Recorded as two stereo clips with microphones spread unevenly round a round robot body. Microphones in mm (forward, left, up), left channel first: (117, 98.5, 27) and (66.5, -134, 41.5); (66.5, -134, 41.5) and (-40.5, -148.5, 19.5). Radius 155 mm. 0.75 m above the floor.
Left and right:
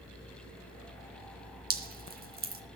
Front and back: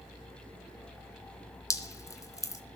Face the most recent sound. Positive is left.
turn(degrees=-50)